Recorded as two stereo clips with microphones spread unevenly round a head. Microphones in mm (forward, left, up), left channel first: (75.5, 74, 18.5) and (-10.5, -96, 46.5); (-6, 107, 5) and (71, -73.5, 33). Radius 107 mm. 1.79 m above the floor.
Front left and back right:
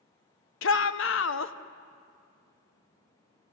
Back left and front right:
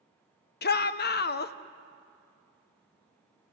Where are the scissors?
No scissors in this recording.